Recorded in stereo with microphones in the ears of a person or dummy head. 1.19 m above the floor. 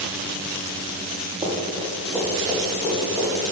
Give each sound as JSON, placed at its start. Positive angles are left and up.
{"t": 1.4, "sound": "running footsteps", "side_deg": -5, "distance_m": 2.0}